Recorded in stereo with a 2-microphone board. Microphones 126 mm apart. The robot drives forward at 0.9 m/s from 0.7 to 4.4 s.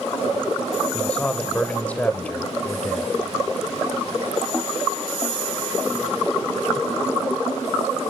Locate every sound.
0.9 s a man speaking: 10° left (ahead or behind), 1.5 m